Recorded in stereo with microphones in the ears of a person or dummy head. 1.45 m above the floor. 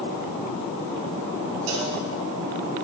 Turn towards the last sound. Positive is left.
turn(degrees=-70)  # may be behind; listen again after turning